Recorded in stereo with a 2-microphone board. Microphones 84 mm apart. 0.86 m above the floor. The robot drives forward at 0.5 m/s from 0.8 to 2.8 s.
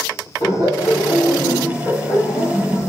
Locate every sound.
0.4 s laughter: 60° left (ahead or behind), 1.7 m; by 2.9 s 50° left (ahead or behind), 1.9 m